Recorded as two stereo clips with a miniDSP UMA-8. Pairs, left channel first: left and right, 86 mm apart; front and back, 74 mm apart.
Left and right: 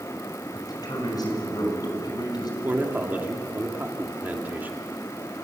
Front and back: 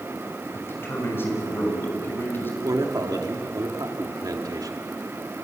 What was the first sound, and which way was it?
A man speaking, 55° left.